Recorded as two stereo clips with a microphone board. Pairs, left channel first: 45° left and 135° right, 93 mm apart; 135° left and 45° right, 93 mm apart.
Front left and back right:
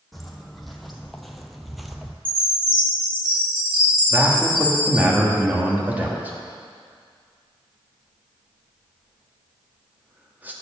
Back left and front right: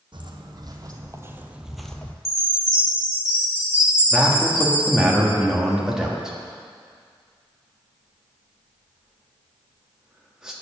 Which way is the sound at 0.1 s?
45° right.